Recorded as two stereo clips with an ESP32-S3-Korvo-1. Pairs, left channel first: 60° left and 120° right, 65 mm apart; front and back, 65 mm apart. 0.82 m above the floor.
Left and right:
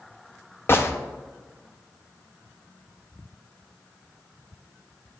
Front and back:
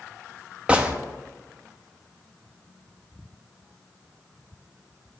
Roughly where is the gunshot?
Left.